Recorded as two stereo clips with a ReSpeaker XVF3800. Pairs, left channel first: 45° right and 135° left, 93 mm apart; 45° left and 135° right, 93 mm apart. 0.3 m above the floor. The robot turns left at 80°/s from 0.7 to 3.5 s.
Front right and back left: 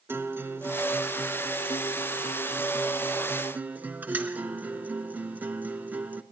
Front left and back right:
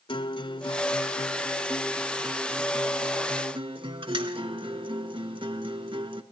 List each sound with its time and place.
0.1 s a guitar: 70° left, 0.8 m; by 6.2 s 155° right, 0.8 m